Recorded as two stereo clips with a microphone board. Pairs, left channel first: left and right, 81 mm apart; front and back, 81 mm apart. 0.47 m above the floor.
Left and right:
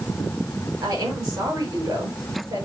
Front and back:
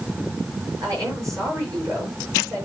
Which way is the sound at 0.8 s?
135° right.